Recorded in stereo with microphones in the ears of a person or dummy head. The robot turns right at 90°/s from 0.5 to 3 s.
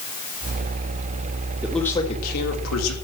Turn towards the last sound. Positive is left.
turn(degrees=115)